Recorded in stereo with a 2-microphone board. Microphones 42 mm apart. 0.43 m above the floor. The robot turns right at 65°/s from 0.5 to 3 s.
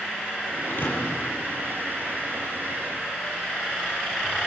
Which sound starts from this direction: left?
A thud, at 0.6 s.